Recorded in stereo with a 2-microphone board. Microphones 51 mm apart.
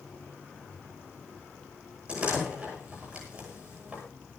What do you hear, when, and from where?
2.1 s a door slam: 20° right (ahead or behind), 10 m